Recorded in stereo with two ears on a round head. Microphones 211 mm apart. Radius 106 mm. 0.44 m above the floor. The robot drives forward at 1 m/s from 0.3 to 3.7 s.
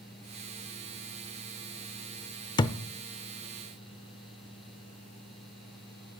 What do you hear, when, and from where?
2.6 s a thud: 20° left (ahead or behind), 0.5 m; by 2.8 s 15° left (ahead or behind), 0.7 m